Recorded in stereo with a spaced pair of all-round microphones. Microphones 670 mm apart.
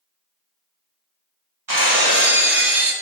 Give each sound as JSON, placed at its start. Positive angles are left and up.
{"t": 1.7, "sound": "breaking glass", "side_deg": -25, "distance_m": 1.6}